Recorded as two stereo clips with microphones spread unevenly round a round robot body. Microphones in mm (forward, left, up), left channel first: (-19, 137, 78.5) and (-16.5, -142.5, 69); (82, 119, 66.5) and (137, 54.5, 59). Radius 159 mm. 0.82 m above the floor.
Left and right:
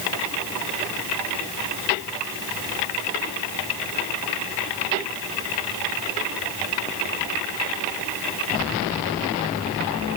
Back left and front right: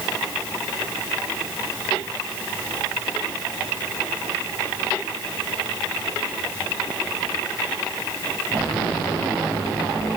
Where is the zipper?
No zipper in this recording.